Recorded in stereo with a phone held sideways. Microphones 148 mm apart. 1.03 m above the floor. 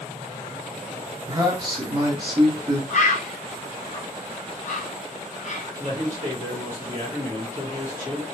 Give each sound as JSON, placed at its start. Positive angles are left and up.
{"t": 1.3, "sound": "a man speaking", "side_deg": -30, "distance_m": 1.1}
{"t": 2.9, "sound": "a bird", "side_deg": 55, "distance_m": 0.5}
{"t": 5.8, "sound": "a man speaking", "side_deg": 55, "distance_m": 1.6}